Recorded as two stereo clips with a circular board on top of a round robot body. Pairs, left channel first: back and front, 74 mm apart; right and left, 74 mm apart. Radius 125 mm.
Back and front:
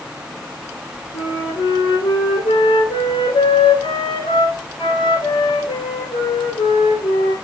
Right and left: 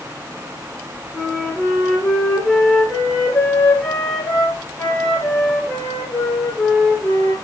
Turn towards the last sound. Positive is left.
turn(degrees=-160)